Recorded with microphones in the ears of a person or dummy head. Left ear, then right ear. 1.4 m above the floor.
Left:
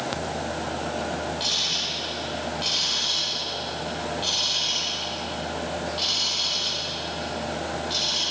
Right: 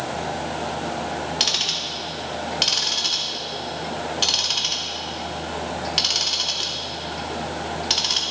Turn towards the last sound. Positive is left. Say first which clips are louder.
# right 3 dB
turn(degrees=-45)  # may be behind; listen again after turning